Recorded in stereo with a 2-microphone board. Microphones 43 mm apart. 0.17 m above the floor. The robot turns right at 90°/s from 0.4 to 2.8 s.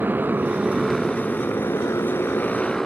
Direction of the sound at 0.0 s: 45° right.